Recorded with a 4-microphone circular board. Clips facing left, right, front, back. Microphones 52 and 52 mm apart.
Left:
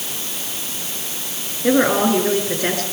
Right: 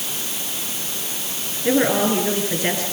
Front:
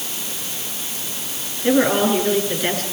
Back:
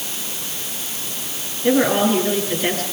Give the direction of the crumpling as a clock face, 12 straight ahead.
No crumpling in this recording.